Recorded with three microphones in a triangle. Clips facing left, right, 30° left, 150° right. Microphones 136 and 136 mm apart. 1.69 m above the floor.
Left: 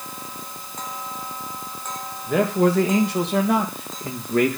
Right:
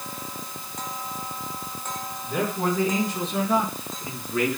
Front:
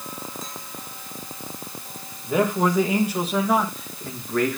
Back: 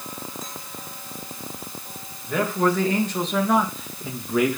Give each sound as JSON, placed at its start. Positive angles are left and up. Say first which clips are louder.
{"t": 2.3, "sound": "a man speaking", "louder": "left 7 dB, front 1 dB", "azimuth_deg": 100, "distance_m": 2.5}